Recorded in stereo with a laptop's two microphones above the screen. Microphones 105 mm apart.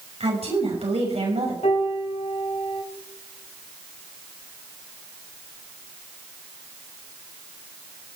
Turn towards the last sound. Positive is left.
turn(degrees=85)